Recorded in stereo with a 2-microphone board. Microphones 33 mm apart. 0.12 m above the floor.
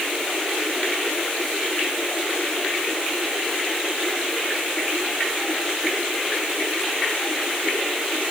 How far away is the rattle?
No rattle in this recording.